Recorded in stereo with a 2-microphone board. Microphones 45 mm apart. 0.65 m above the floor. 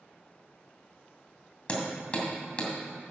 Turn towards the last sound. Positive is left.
turn(degrees=30)  # may be behind; listen again after turning